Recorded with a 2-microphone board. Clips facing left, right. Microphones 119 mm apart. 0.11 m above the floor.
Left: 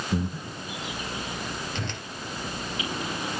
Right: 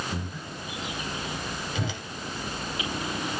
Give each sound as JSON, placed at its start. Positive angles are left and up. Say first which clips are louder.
{"t": 0.1, "sound": "breathing", "louder": "left 6 dB", "side_deg": 35, "distance_m": 4.5}
{"t": 1.8, "sound": "a whoosh", "louder": "right 2 dB", "side_deg": -5, "distance_m": 1.3}